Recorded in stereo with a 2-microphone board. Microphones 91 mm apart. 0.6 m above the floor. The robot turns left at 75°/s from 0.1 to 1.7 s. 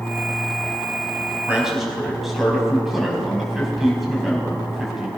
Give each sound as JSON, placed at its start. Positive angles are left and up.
{"t": 1.5, "sound": "a man speaking", "side_deg": -20, "distance_m": 4.5}